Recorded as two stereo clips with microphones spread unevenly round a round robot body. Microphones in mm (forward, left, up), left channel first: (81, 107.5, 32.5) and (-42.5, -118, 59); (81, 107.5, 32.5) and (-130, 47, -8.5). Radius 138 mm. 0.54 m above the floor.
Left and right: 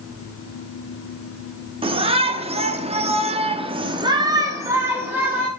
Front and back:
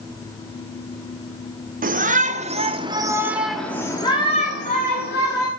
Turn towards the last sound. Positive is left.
turn(degrees=-30)